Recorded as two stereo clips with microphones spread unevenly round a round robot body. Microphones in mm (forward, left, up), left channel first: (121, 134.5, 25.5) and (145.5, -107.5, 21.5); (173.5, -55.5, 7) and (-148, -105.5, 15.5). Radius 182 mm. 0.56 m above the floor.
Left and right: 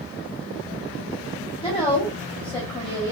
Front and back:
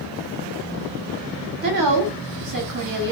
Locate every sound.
1.6 s a woman speaking: 160° left, 1.2 m